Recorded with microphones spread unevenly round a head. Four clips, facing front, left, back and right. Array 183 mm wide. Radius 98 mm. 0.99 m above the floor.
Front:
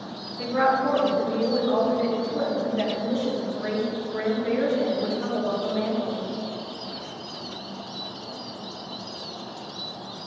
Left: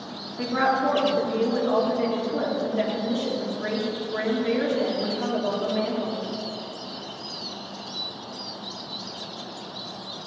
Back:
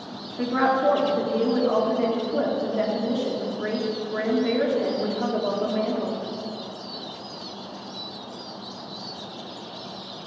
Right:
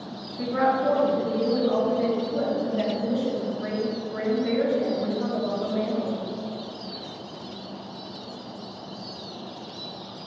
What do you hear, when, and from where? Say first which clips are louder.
0.4 s a woman speaking: even, back 1 dB; 145° left, 3 m